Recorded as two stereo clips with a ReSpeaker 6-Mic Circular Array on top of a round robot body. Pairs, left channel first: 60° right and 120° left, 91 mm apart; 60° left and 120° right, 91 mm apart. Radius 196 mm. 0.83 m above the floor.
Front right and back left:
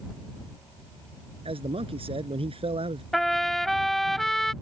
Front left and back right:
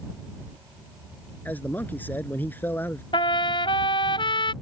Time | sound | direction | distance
1.4 | a man speaking | 130° left | ?
3.1 | a trumpet | 30° left | ?